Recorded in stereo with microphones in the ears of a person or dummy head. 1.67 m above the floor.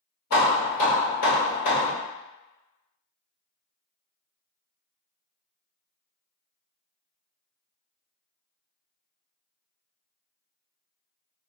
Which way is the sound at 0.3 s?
50° left (ahead or behind).